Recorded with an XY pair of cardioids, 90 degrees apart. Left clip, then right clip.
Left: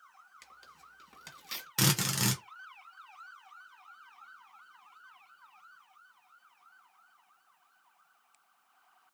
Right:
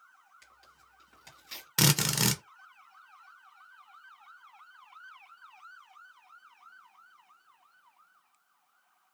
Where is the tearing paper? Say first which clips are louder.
Left 4 dB; 50° left, 1.5 m.